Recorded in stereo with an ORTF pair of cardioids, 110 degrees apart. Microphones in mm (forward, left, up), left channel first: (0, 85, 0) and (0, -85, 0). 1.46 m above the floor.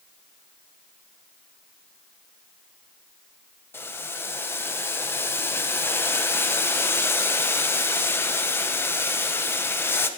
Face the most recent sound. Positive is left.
turn(degrees=15)